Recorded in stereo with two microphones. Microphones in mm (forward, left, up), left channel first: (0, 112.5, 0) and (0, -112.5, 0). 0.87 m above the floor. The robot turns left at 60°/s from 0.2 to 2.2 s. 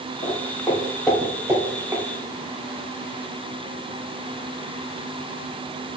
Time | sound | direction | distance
0.2 | footsteps | 40° left (ahead or behind) | 1.9 m